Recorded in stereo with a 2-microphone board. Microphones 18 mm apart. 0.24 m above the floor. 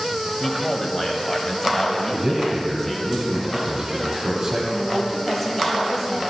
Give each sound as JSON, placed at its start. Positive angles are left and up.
{"t": 0.4, "sound": "a man speaking", "side_deg": 20, "distance_m": 1.2}
{"t": 2.1, "sound": "a man speaking", "side_deg": -25, "distance_m": 1.1}
{"t": 4.7, "sound": "a woman speaking", "side_deg": 10, "distance_m": 1.6}